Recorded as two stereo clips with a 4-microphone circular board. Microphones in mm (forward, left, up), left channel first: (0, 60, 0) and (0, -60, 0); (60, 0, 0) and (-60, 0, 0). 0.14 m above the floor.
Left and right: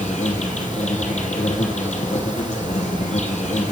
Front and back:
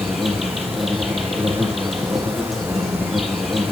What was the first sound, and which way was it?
An insect, 90° left.